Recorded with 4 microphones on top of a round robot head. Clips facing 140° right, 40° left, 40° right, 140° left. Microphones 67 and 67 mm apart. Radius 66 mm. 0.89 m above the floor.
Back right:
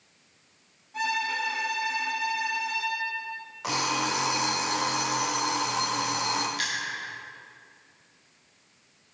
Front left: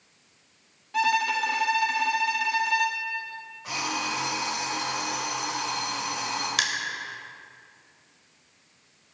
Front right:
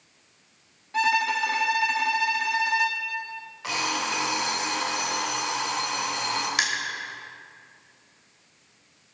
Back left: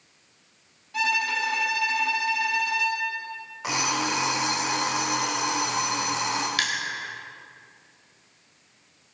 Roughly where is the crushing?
Ahead left.